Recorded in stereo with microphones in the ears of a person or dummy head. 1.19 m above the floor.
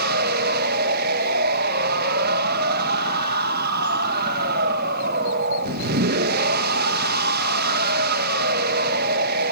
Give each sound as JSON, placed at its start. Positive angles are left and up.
{"t": 0.0, "sound": "a machine running", "side_deg": -60, "distance_m": 1.1}